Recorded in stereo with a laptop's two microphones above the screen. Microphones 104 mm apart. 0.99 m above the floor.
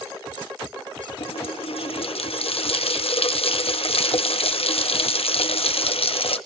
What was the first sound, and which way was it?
A running tap, 75° left (ahead or behind).